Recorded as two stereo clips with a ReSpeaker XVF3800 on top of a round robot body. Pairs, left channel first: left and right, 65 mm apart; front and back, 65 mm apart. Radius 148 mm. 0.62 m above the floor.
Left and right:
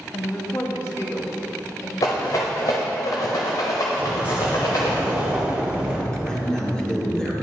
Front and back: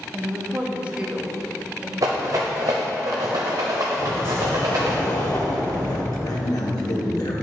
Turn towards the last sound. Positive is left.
turn(degrees=15)